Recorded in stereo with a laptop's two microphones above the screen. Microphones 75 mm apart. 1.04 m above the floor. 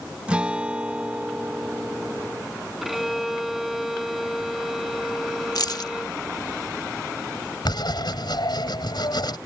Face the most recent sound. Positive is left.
turn(degrees=70)  # may be behind; listen again after turning